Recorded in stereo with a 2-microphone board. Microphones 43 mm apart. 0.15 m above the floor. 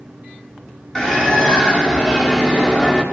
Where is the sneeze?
I don't hear a sneeze.